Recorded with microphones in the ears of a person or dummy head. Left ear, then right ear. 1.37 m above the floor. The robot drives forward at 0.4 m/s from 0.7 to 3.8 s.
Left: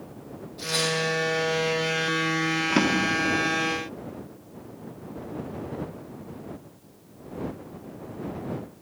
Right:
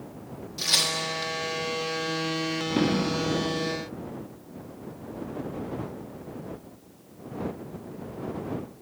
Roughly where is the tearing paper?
Right.